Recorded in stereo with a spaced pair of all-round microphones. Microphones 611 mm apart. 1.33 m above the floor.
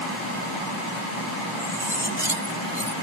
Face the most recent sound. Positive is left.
turn(degrees=-85)